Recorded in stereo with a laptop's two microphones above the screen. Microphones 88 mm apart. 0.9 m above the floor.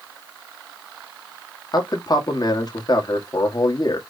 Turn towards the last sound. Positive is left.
turn(degrees=45)  # may be behind; listen again after turning